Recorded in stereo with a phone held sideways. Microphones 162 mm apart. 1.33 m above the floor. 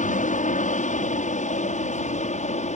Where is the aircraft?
50° left (ahead or behind); by 2.8 s 45° left (ahead or behind).